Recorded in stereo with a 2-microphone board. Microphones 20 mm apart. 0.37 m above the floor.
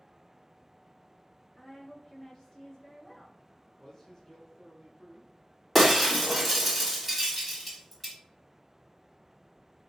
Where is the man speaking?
25° left (ahead or behind), 1.2 m.